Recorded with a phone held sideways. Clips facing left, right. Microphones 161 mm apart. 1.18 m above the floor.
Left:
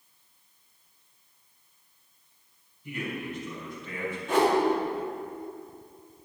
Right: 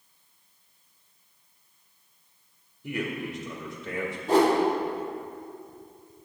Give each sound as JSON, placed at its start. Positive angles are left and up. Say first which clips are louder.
{"t": 2.8, "sound": "a man speaking", "louder": "right 3 dB", "side_deg": -85, "distance_m": 1.9}
{"t": 4.3, "sound": "a whoosh", "louder": "right 3 dB", "side_deg": -35, "distance_m": 2.5}